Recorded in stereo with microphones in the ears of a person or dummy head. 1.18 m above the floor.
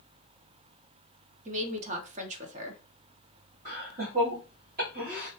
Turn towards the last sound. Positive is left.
turn(degrees=-50)  # may be behind; listen again after turning